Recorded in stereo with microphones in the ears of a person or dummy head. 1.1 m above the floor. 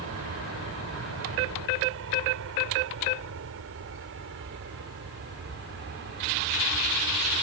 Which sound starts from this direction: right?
An aircraft, at 0.0 s.